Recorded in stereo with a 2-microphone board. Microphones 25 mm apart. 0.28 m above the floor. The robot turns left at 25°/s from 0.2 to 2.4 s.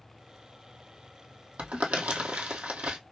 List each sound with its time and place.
1.6 s crumpling: 70° right (ahead or behind), 1.4 m; by 3.0 s 85° right, 1.4 m